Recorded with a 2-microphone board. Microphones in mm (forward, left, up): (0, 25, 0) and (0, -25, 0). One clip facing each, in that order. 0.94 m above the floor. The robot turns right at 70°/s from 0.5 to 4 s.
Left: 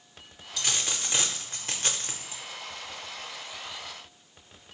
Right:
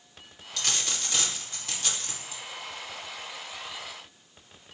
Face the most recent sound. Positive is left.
turn(degrees=-110)